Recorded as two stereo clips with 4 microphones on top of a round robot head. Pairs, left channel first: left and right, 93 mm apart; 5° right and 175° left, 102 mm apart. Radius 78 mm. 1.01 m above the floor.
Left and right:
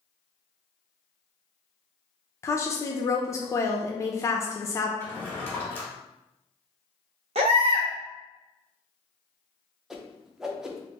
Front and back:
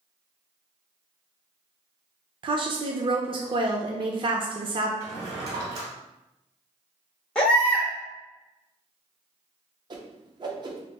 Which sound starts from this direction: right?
A baby crying, at 7.3 s.